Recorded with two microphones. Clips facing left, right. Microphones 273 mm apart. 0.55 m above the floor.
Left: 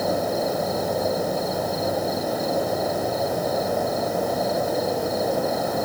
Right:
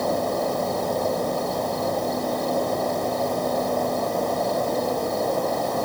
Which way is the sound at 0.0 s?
5° left (ahead or behind).